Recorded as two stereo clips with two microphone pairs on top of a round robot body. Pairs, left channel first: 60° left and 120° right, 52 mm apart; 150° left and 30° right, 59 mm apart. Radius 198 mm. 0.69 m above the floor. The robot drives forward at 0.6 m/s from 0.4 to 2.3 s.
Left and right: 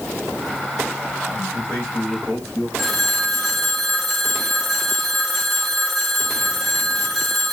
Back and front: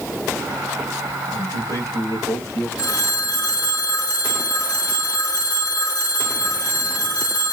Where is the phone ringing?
150° left, 1.8 m.